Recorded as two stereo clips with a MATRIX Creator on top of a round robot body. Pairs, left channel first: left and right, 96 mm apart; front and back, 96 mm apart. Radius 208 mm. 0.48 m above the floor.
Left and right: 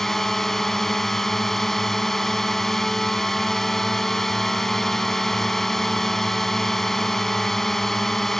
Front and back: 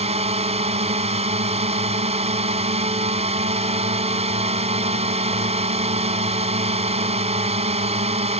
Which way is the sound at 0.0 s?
175° left.